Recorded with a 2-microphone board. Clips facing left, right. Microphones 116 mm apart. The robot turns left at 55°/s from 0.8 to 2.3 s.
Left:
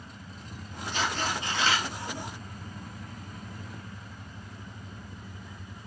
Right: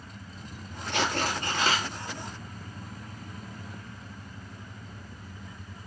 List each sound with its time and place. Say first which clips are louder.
0.9 s tearing paper: right 2 dB; 95° right, 1.1 m; by 1.9 s 145° right, 1.1 m